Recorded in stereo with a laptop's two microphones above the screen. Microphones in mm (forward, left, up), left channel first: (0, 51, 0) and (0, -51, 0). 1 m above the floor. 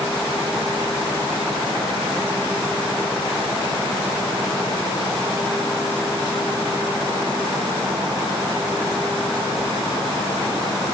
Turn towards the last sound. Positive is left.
No sound to turn to.